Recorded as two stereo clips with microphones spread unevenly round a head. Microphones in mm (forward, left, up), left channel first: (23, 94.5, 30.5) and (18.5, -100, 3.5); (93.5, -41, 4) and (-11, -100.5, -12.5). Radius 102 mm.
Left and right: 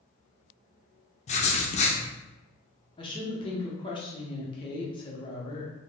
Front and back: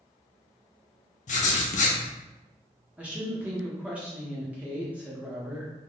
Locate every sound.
1.3 s writing: 35° left, 0.6 m
3.0 s a woman speaking: 125° left, 0.7 m